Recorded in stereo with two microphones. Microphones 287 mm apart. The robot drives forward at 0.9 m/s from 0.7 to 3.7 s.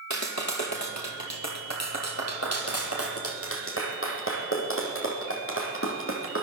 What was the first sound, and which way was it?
A clap, 75° left (ahead or behind).